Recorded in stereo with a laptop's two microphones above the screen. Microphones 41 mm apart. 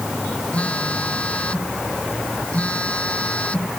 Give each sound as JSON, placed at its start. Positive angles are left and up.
{"t": 0.5, "sound": "a phone buzzing", "side_deg": 35}